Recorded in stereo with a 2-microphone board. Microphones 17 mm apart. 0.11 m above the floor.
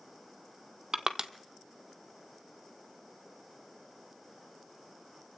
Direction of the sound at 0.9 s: 35° right (ahead or behind).